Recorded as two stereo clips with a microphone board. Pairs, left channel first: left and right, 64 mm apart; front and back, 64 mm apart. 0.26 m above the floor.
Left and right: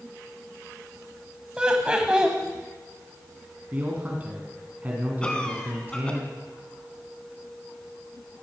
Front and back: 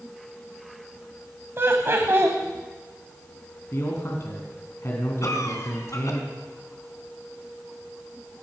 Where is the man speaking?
35° right, 2.5 m.